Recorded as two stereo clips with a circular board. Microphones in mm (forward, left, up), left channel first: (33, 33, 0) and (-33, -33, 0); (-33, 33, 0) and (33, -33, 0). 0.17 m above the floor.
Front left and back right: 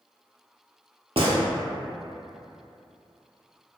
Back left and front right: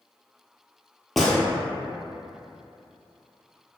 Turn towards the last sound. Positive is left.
turn(degrees=-135)